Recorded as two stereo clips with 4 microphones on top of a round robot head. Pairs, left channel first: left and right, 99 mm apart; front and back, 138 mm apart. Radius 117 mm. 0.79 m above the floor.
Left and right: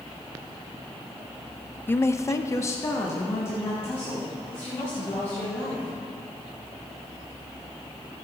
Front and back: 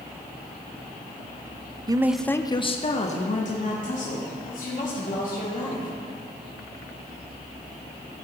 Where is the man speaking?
145° left, 0.6 m; by 5.9 s 20° left, 4 m.